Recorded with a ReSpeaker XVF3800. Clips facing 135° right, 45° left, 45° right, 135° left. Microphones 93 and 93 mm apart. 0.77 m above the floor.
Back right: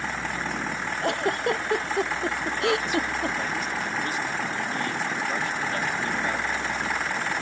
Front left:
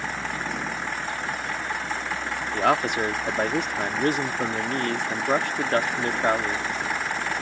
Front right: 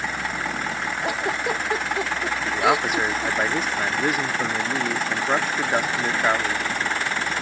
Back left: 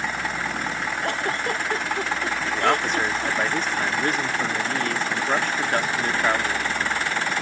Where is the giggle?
125° right.